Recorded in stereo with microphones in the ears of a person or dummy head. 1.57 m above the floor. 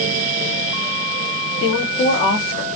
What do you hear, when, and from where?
1.6 s a woman speaking: 25° left (ahead or behind), 0.9 m